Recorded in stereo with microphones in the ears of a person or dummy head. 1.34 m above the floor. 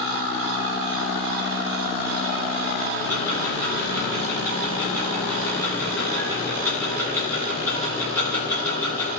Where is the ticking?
20° left (ahead or behind), 4.5 m.